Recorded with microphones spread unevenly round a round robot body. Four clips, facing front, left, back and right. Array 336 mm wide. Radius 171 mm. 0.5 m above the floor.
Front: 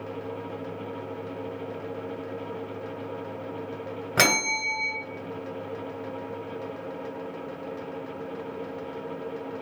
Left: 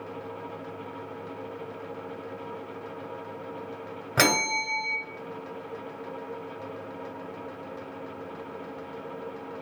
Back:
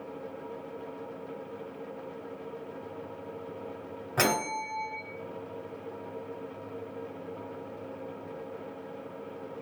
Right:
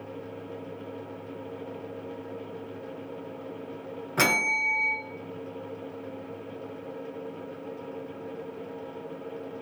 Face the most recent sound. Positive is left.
turn(degrees=35)